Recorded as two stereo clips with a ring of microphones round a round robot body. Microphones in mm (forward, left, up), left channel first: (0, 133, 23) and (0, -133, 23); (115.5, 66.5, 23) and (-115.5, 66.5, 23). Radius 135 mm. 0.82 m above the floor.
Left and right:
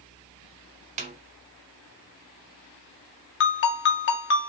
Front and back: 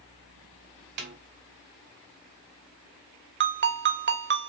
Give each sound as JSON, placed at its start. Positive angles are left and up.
{"t": 1.0, "sound": "a snare drum", "azimuth_deg": -145, "distance_m": 0.5}
{"t": 3.4, "sound": "a ringtone", "azimuth_deg": 140, "distance_m": 0.7}